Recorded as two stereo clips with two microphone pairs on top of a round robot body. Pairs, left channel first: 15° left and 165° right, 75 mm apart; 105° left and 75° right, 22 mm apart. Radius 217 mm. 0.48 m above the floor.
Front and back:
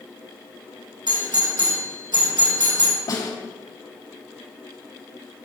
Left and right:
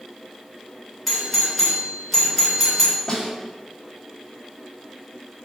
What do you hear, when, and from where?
1.1 s a doorbell: 165° right, 3 m
3.1 s a snare drum: 50° left, 3 m